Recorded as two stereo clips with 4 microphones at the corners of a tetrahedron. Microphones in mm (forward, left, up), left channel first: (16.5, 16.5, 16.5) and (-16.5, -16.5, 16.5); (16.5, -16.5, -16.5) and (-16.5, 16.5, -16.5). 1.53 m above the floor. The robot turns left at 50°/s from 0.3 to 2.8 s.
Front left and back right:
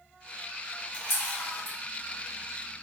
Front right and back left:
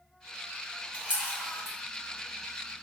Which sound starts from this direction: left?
A camera shutter, at 0.9 s.